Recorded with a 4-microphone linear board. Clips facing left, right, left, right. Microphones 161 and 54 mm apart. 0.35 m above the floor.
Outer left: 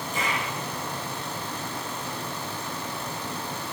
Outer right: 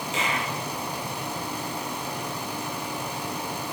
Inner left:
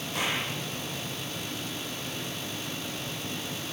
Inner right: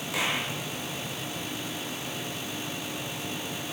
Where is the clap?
80° right, 9 m.